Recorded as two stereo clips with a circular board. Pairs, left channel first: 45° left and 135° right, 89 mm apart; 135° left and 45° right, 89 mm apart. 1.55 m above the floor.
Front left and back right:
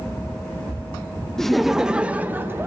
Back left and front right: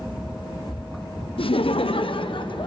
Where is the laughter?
130° left, 1.0 m; by 2.7 s 160° left, 1.2 m.